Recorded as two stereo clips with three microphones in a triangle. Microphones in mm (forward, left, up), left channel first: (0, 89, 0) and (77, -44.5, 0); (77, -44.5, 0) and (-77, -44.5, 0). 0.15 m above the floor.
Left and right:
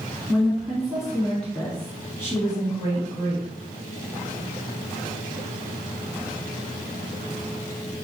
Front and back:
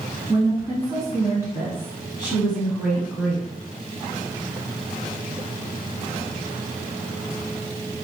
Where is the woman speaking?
135° right, 1.6 m; by 3.5 s 95° left, 1.6 m.